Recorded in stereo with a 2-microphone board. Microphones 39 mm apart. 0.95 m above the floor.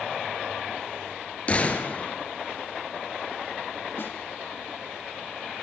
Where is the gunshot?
30° left (ahead or behind), 2.5 m.